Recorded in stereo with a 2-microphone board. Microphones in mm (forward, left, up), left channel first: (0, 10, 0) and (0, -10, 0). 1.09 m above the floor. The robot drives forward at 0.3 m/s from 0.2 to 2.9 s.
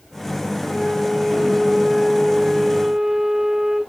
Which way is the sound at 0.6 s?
50° right (ahead or behind).